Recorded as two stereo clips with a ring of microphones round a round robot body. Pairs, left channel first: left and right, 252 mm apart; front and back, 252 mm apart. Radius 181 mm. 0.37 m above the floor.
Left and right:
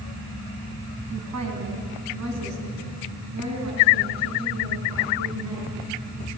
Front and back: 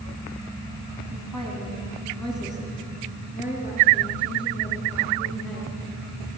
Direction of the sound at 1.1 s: 95° right.